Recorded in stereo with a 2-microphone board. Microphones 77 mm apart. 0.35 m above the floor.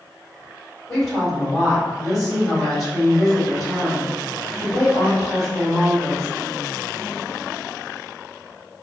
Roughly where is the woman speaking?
Left.